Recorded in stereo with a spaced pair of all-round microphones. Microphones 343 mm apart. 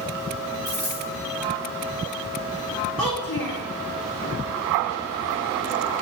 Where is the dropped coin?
30° left (ahead or behind), 3 m.